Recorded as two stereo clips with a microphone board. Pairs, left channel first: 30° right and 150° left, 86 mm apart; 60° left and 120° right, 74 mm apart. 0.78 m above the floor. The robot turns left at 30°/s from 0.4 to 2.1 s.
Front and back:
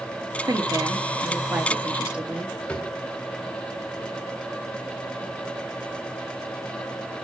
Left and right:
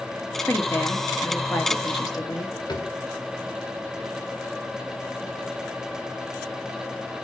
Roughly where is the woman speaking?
Behind left.